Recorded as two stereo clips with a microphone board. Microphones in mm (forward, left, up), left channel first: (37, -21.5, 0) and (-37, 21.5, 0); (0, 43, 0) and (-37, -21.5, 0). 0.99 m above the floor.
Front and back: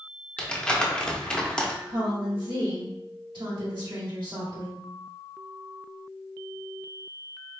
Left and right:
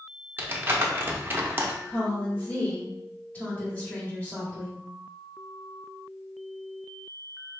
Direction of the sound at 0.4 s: 100° right.